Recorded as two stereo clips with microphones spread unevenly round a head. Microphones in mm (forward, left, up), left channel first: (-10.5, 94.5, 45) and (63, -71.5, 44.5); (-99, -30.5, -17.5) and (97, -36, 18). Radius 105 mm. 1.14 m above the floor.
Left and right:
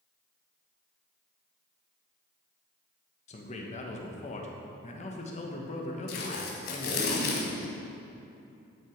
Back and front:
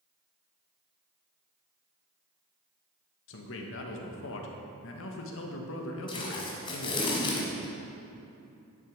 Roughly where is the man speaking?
Behind.